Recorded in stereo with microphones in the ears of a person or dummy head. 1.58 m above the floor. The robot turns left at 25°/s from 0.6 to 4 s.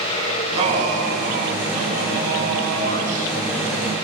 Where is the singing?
30° right, 9 m; by 4.1 s 115° right, 9 m.